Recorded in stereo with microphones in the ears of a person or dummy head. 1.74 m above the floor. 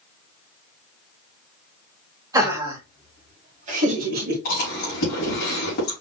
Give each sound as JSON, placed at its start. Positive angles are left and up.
{"t": 2.3, "sound": "laughter", "side_deg": -15, "distance_m": 2.0}
{"t": 4.5, "sound": "chewing", "side_deg": 45, "distance_m": 3.0}